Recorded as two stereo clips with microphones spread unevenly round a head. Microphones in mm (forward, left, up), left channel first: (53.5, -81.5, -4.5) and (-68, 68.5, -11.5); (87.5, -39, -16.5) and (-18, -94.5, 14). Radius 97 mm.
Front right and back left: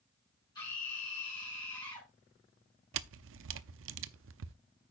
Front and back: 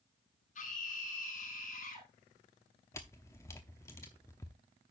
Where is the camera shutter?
110° left, 0.6 m.